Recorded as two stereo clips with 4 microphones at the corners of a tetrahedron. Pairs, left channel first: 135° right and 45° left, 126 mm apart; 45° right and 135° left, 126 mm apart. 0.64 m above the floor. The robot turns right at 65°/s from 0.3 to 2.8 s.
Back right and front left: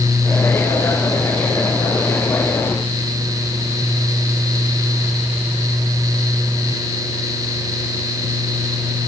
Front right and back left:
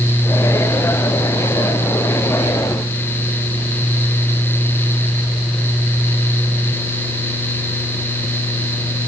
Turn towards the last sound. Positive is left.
No sound to turn to.